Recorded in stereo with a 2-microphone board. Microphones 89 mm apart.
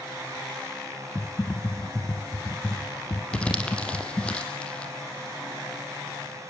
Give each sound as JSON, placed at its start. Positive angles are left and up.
{"t": 1.1, "sound": "typing on a keyboard", "side_deg": 25, "distance_m": 0.8}
{"t": 3.3, "sound": "crumpling", "side_deg": 10, "distance_m": 3.0}